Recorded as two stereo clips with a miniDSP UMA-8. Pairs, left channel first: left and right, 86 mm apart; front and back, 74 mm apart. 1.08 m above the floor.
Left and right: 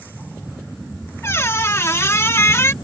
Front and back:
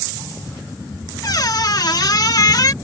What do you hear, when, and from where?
1.2 s a squeak: 30° left